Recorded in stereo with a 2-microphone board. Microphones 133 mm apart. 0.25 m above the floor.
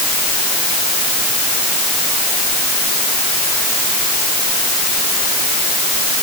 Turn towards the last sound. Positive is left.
No sound to turn to.